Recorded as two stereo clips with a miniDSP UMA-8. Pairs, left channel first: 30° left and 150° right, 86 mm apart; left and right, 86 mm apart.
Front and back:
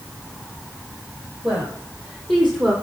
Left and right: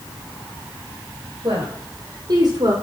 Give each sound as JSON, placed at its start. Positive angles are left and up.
{"t": 1.4, "sound": "a woman speaking", "azimuth_deg": -70, "distance_m": 5.0}